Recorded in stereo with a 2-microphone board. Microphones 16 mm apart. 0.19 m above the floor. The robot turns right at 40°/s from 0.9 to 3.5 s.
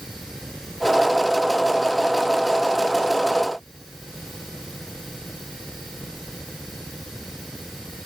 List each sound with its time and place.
Only background noise.